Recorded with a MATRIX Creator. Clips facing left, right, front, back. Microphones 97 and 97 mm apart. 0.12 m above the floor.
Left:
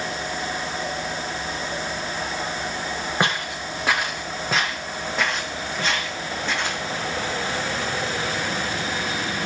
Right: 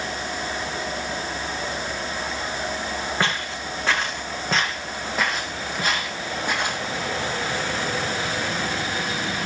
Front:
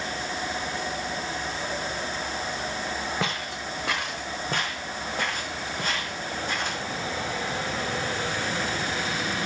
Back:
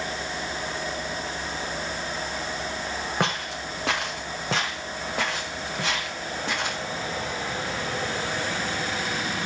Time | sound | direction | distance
3.2 | footsteps | 165° left | 6 m